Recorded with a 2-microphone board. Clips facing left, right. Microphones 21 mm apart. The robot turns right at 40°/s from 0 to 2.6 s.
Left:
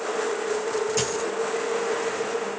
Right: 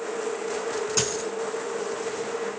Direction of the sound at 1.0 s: 25° right (ahead or behind).